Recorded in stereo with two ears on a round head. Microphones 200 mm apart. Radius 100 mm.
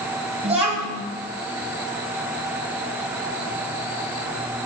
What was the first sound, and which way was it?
A child speaking, 25° right (ahead or behind).